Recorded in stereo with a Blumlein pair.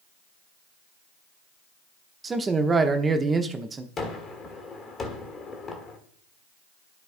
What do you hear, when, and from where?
2.2 s a man speaking: 15° right, 0.9 m
4.0 s a gunshot: 20° left, 1.4 m